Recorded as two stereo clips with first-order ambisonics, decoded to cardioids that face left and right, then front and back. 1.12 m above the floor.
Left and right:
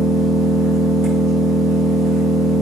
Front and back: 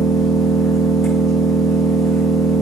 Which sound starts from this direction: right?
An engine running, at 0.0 s.